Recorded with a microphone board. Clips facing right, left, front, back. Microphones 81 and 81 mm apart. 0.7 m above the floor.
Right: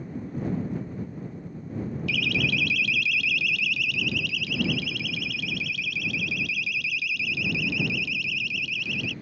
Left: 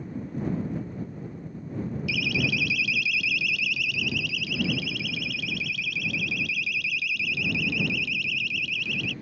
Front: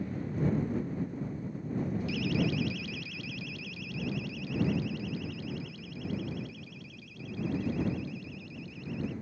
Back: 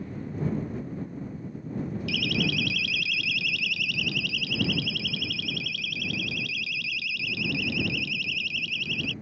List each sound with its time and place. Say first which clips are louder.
2.1 s a siren: right 1 dB, back 2 dB; 170° left; by 9.1 s straight behind